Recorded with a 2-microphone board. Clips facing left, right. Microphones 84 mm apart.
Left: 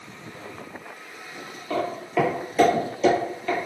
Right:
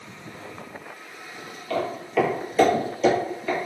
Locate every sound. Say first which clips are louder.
1.7 s footsteps: even; 15° left (ahead or behind), 1.0 m; by 3.6 s 10° right (ahead or behind), 1.0 m